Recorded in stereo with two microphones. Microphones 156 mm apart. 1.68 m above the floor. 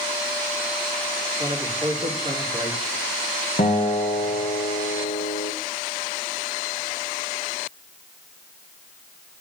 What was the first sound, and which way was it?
A man speaking, 25° right (ahead or behind).